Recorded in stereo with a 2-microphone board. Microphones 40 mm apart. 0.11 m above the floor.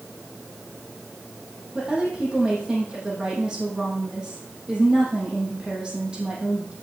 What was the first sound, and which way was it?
A woman speaking, 20° right (ahead or behind).